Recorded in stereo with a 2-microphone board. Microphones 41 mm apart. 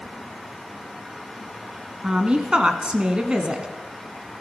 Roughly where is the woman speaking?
Right.